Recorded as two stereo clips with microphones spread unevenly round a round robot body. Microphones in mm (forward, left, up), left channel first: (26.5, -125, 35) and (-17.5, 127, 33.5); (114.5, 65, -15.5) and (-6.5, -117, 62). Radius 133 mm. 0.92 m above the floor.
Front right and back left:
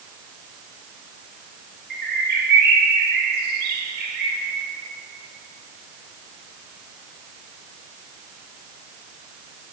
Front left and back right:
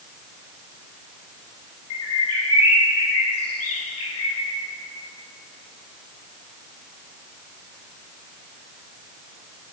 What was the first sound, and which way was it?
A bird, 45° left.